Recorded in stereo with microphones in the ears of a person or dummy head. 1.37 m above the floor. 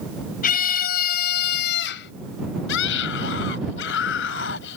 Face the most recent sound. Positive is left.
turn(degrees=65)  # may be behind; listen again after turning